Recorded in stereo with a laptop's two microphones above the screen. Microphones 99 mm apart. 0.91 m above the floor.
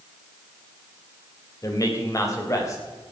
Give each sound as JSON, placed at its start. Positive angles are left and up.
{"t": 1.6, "sound": "a man speaking", "side_deg": 35, "distance_m": 3.5}